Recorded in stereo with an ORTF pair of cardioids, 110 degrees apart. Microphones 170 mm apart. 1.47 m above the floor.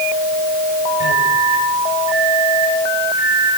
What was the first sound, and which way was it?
A microwave, 25° right.